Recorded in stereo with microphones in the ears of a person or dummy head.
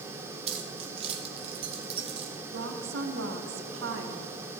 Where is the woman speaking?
85° right, 1.2 m.